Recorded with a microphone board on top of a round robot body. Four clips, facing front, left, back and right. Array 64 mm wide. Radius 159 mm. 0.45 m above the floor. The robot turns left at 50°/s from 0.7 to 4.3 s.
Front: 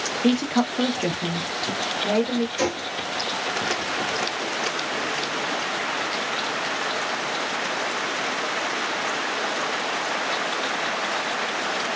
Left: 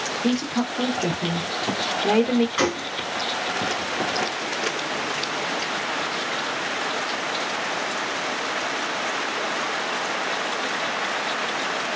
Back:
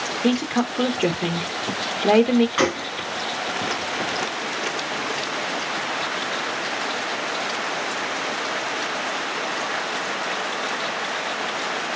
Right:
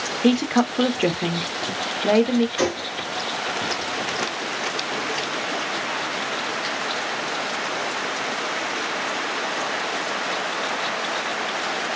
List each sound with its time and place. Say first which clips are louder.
0.2 s a woman speaking: right 6 dB, even; 95° right, 1.3 m; by 2.5 s straight behind, 1.3 m
2.6 s a gunshot: even, back 4 dB; 170° left, 3.5 m; by 2.9 s 155° left, 3.5 m